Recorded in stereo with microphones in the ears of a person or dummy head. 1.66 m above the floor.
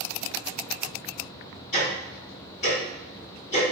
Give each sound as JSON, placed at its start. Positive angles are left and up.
{"t": 1.7, "sound": "ticking", "side_deg": 15, "distance_m": 1.5}